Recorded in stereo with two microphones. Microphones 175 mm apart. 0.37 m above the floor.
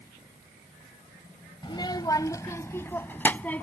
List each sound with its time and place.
1.6 s a child speaking: 25° left (ahead or behind); by 3.6 s 10° left (ahead or behind)